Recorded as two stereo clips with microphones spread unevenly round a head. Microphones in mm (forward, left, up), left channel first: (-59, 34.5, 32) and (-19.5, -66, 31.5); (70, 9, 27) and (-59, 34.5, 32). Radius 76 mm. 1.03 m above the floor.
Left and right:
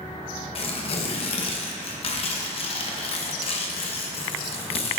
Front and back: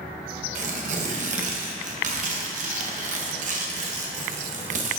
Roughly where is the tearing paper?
Behind left.